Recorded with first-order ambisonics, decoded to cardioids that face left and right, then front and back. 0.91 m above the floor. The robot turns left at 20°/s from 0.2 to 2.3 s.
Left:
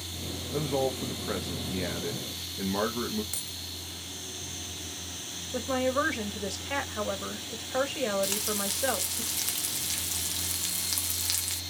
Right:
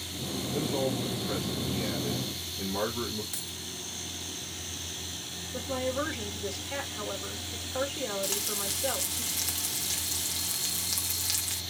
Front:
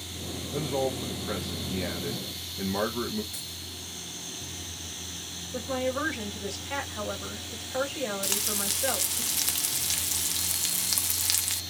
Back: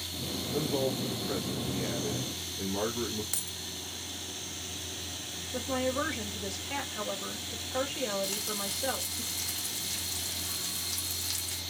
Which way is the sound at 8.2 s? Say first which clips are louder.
Left 1 dB, front 4 dB; 10° left.